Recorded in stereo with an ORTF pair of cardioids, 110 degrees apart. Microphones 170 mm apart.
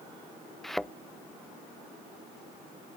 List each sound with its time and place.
0.6 s a thud: straight ahead